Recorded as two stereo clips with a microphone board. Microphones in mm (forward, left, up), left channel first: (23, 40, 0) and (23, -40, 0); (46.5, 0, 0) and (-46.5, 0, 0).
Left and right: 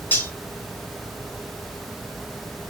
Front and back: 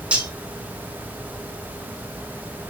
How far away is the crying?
I don't hear crying.